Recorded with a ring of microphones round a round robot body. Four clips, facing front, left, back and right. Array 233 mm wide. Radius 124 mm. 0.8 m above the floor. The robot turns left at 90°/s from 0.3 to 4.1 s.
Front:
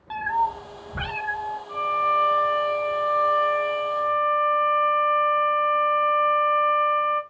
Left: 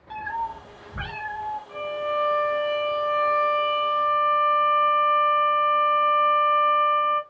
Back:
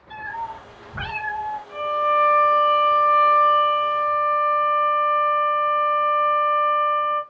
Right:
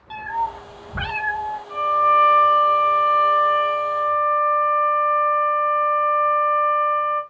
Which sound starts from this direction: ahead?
A cat meowing, at 0.1 s.